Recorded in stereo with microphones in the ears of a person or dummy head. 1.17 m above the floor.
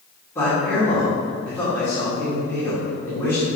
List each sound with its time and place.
0.3 s a man speaking: 15° left (ahead or behind), 2.5 m